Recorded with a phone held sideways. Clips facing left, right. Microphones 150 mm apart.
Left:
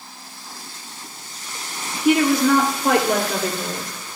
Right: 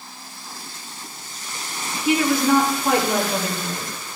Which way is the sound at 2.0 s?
75° left (ahead or behind).